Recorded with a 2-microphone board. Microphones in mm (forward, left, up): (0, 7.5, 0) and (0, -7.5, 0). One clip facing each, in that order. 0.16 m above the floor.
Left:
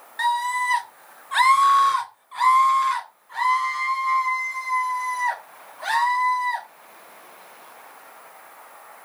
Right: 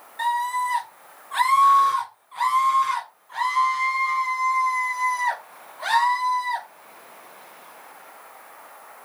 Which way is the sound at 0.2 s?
40° left (ahead or behind).